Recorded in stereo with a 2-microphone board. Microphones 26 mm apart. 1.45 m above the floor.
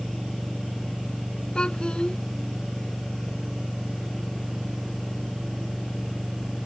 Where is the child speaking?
35° left (ahead or behind).